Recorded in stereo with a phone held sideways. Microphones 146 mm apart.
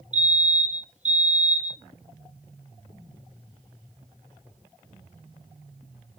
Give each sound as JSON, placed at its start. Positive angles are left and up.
{"t": 0.1, "sound": "a fire alarm", "side_deg": -50, "distance_m": 1.0}